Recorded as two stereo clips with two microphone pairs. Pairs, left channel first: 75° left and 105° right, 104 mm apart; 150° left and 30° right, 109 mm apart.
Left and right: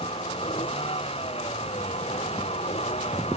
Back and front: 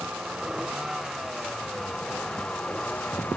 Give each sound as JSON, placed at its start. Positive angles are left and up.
{"t": 0.0, "sound": "a vehicle", "azimuth_deg": 55}